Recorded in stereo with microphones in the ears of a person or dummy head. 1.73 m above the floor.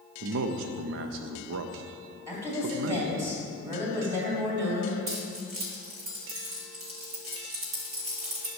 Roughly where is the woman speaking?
Centre.